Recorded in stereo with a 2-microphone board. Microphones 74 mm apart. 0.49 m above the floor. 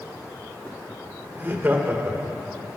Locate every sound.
1.4 s laughter: 30° right (ahead or behind), 1.9 m